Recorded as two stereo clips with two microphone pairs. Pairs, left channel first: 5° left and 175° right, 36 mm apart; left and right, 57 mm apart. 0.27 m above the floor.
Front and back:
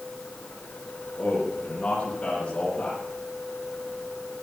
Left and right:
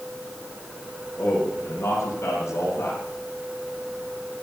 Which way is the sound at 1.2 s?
55° left.